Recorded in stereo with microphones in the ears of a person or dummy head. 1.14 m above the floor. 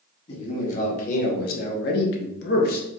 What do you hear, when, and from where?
0.3 s a man speaking: 40° left (ahead or behind), 2 m; by 2.9 s 45° left (ahead or behind), 0.8 m